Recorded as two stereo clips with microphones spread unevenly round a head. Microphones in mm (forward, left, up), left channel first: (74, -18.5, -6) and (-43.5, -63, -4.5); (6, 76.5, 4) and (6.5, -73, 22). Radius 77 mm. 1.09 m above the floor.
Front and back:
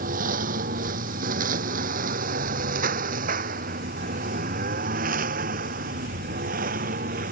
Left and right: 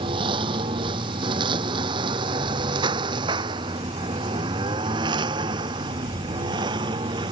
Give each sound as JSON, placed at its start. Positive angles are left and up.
{"t": 0.0, "sound": "a lawn mower", "azimuth_deg": -150}